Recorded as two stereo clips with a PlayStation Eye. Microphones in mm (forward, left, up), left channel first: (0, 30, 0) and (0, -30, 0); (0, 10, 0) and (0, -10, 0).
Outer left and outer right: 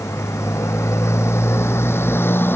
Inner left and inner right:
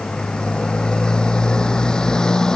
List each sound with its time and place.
0.0 s a motorcycle: 55° left (ahead or behind); by 2.6 s 35° left (ahead or behind)